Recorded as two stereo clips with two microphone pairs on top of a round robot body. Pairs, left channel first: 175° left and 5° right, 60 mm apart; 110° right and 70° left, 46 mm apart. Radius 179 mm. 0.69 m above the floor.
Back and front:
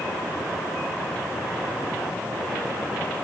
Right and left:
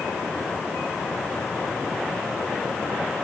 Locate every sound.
Only background noise.